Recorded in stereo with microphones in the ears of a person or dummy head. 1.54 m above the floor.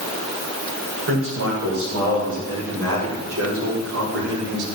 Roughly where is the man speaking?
Right.